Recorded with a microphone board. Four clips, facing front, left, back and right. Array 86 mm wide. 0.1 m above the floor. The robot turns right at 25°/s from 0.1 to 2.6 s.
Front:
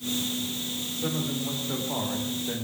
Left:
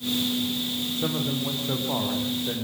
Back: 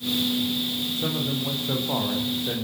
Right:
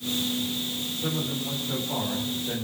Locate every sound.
1.0 s a man speaking: 115° left, 7 m; by 2.6 s 155° left, 7 m